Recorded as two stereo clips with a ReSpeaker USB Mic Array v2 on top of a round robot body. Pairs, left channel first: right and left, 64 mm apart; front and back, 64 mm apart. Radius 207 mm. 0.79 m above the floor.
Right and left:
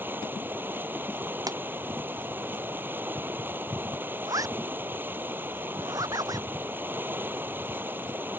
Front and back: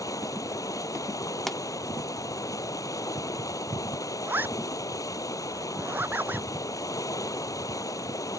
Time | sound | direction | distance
0.0 | running water | 35° left | ?
1.5 | a pop | 85° left | ?
4.3 | a zipper | 115° left | ?